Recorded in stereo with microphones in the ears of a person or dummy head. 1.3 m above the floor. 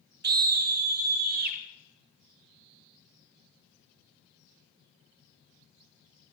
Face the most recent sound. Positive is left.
turn(degrees=-45)  # may be behind; listen again after turning